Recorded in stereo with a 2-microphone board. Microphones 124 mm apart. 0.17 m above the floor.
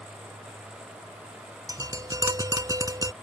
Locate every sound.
1.7 s tapping: 30° right (ahead or behind)